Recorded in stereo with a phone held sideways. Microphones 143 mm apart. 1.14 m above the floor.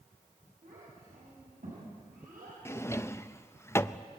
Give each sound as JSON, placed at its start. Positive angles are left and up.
{"t": 0.6, "sound": "a child speaking", "side_deg": -85, "distance_m": 6.5}
{"t": 2.6, "sound": "a drawer", "side_deg": 20, "distance_m": 0.5}